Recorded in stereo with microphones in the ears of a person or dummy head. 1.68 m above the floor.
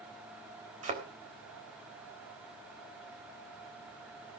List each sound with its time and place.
0.8 s a thud: 45° right (ahead or behind), 3.5 m